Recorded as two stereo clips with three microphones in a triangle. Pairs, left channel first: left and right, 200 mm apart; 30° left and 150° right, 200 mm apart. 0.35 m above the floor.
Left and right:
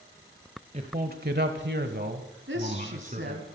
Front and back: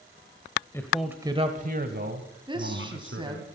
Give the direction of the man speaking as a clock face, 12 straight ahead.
1 o'clock.